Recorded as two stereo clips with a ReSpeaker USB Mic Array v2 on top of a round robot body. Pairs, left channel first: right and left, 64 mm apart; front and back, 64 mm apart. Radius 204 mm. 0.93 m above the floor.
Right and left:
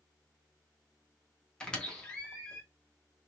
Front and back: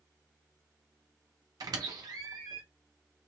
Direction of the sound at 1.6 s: 165° right.